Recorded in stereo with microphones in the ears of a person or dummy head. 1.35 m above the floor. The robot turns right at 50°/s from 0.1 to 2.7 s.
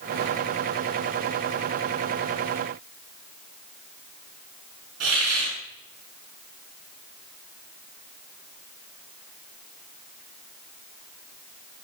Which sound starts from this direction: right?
A hiss, at 5.0 s.